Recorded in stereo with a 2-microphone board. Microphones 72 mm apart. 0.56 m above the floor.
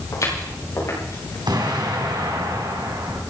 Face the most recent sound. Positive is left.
turn(degrees=-80)